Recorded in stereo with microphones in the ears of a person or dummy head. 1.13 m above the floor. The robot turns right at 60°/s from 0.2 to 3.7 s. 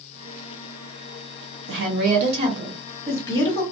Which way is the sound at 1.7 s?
80° right.